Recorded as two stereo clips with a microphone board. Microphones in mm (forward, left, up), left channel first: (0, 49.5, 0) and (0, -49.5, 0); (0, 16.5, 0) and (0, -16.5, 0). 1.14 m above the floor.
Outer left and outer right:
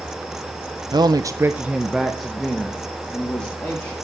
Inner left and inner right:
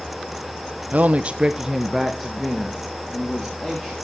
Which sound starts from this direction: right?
A man speaking, at 0.9 s.